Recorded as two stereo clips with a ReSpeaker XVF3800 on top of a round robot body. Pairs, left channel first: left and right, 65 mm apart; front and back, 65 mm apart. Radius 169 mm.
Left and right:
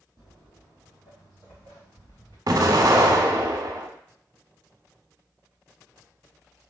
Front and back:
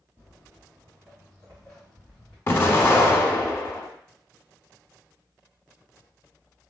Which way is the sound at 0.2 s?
115° left.